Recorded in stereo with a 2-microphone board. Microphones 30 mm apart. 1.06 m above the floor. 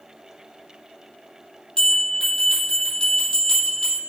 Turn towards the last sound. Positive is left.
turn(degrees=20)  # may be behind; listen again after turning